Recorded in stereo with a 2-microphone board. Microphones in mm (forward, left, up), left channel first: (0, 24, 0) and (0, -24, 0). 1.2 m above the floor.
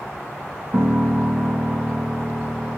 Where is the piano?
30° right (ahead or behind), 2 m.